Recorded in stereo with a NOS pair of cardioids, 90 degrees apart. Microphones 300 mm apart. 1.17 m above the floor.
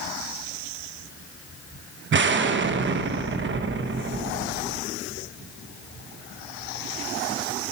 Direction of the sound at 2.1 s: 40° right.